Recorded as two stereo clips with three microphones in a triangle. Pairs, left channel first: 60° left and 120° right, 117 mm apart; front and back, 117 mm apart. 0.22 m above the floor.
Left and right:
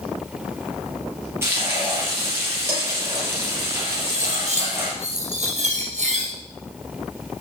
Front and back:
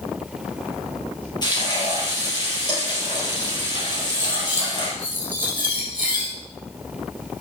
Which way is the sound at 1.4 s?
50° right.